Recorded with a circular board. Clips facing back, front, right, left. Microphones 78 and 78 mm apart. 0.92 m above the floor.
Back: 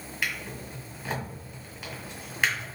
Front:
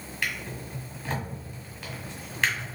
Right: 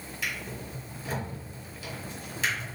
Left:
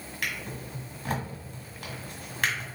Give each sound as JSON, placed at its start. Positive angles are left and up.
{"t": 0.2, "sound": "a drawer", "azimuth_deg": 105, "distance_m": 1.6}